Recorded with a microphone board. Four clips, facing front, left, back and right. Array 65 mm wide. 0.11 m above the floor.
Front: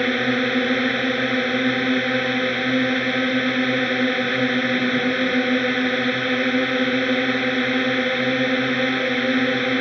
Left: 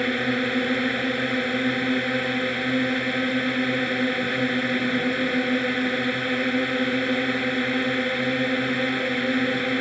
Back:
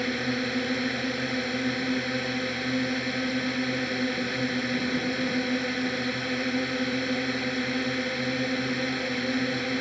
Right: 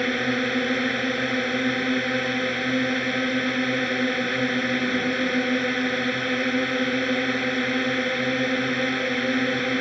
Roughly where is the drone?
Ahead.